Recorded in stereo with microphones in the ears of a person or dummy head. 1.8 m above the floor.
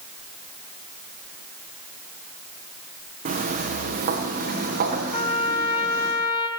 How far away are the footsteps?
About 5.5 m.